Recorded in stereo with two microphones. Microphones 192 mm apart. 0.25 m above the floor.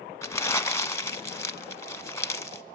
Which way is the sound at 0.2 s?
15° left (ahead or behind).